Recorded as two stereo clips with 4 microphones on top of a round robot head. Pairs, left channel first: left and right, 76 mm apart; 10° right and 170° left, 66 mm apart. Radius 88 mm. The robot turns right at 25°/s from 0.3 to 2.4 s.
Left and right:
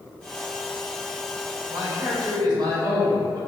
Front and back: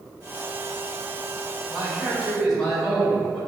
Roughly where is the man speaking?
Right.